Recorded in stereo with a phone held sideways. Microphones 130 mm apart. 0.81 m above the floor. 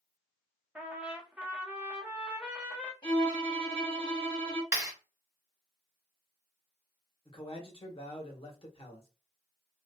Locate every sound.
0.8 s a trumpet: 10° right (ahead or behind), 0.6 m
3.0 s a violin: 40° left (ahead or behind), 1.3 m
4.7 s a clap: 15° right (ahead or behind), 1.5 m
7.2 s a man speaking: 45° left (ahead or behind), 1.0 m